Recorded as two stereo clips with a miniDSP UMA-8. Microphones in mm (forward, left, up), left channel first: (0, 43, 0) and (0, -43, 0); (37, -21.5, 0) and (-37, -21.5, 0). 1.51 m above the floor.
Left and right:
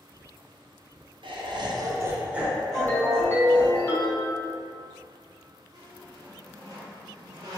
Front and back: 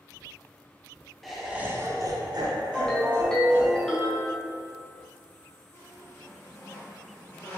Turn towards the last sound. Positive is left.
turn(degrees=-55)